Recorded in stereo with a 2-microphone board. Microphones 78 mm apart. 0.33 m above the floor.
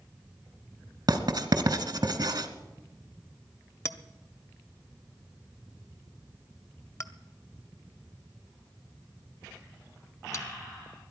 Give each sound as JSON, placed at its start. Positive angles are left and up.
{"t": 1.1, "sound": "writing", "side_deg": -60, "distance_m": 1.2}
{"t": 3.9, "sound": "a clink", "side_deg": 40, "distance_m": 0.6}